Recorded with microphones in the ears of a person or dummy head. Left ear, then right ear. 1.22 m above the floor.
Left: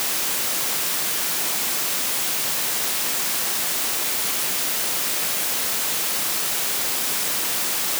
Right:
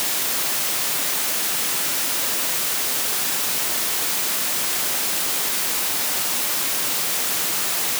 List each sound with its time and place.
Only background noise.